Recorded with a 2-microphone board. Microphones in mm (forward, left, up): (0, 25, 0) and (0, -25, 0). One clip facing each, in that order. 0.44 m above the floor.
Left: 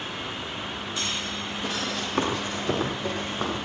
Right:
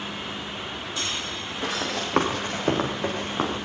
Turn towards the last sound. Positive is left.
turn(degrees=-60)  # may be behind; listen again after turning